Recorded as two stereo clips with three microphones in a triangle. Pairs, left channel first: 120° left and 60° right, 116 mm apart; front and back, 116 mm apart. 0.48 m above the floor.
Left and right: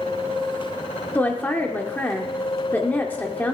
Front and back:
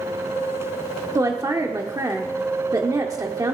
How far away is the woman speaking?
About 0.9 m.